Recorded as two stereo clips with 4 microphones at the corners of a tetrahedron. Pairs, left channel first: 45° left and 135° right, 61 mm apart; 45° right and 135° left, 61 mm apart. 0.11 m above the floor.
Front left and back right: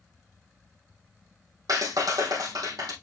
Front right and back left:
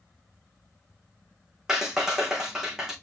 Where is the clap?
145° right, 4 m.